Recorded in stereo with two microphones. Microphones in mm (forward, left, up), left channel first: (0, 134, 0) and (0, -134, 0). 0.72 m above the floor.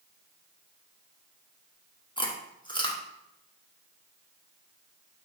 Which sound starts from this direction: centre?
Chewing, at 2.2 s.